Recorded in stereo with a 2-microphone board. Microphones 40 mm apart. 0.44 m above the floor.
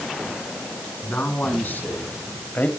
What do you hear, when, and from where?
1.0 s a man speaking: 55° left (ahead or behind), 5 m; by 2.7 s 45° left (ahead or behind), 2.5 m